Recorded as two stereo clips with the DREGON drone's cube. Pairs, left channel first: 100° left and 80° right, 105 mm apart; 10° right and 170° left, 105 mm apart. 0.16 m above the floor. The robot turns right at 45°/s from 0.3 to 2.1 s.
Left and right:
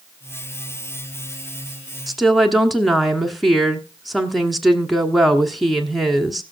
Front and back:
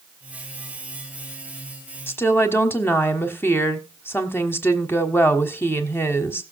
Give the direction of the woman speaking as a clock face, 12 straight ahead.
12 o'clock.